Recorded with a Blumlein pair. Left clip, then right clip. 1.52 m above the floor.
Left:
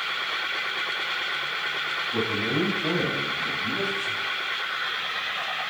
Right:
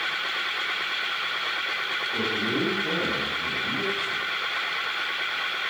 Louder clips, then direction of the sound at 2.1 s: Left 1 dB; 45° left.